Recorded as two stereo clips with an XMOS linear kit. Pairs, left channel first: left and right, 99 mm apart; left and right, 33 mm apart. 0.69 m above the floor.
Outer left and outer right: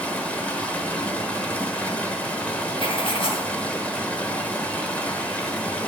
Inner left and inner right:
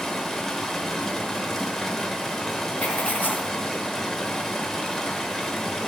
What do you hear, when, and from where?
0.0 s running water: 15° left (ahead or behind), 1.1 m
2.8 s writing: 60° left (ahead or behind), 1.3 m